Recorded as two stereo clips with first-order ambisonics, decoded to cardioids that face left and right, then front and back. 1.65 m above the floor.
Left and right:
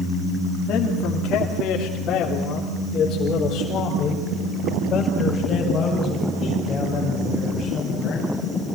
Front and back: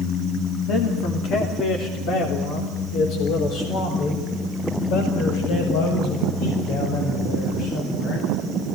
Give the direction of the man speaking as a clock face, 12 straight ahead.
10 o'clock.